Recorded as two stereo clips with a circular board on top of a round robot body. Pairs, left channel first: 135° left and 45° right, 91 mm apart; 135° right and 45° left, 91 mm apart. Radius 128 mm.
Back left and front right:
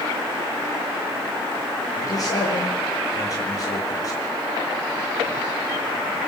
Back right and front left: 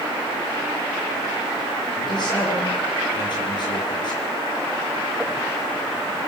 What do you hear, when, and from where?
2.0 s a man speaking: 175° right, 9.5 m